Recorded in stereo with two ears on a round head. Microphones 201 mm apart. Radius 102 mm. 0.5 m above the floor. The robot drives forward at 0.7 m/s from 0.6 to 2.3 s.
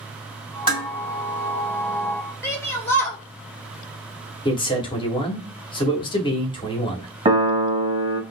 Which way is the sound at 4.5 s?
20° left (ahead or behind).